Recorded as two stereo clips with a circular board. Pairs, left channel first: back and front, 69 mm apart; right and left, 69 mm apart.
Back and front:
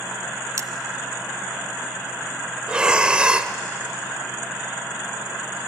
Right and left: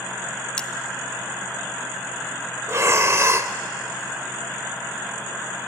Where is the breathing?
70° left, 0.9 m.